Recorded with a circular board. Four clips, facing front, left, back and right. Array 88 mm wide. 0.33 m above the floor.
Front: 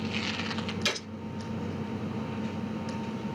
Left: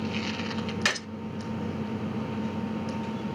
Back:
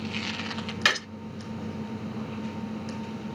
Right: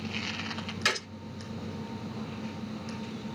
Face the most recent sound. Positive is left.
turn(degrees=165)